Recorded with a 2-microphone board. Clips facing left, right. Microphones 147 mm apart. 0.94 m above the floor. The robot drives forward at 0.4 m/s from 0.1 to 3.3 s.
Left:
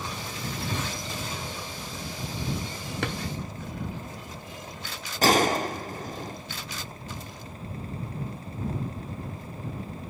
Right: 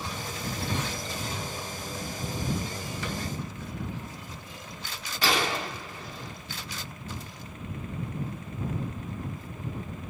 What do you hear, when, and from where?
3.0 s a drawer: 70° left (ahead or behind), 1.0 m
5.2 s a gunshot: 45° left (ahead or behind), 0.6 m